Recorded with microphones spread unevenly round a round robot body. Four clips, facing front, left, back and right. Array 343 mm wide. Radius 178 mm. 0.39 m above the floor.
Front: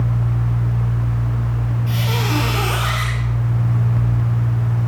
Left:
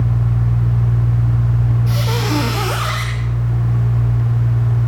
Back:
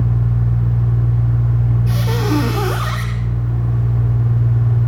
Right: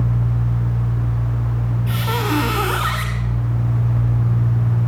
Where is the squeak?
160° left, 1.0 m.